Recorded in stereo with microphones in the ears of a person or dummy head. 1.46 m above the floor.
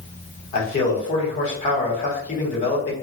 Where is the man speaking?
40° left (ahead or behind), 1.1 m.